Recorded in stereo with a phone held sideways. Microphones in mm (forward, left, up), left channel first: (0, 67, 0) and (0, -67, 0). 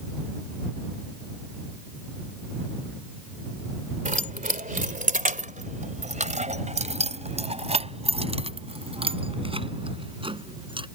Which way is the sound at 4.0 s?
75° right (ahead or behind).